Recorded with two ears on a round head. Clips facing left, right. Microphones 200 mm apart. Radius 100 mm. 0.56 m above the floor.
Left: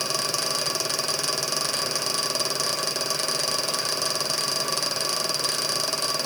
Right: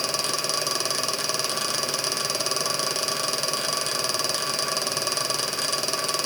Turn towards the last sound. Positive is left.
No sound to turn to.